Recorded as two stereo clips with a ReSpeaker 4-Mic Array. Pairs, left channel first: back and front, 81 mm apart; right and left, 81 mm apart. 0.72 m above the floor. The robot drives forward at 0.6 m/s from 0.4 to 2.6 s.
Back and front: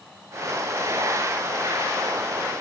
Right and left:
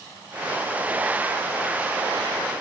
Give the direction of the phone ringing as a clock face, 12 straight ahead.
I don't hear a phone ringing.